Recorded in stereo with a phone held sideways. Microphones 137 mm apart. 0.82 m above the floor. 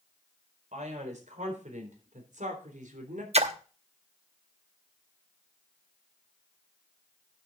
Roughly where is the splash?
Right.